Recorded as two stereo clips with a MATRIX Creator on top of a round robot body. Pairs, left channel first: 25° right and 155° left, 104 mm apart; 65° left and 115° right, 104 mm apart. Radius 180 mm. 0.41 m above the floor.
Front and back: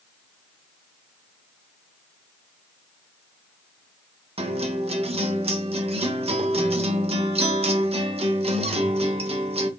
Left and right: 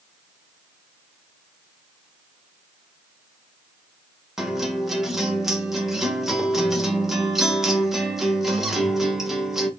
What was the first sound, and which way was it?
A guitar, 160° left.